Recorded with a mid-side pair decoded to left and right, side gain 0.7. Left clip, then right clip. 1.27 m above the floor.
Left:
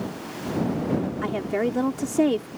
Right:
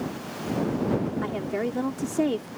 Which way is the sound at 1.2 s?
15° left.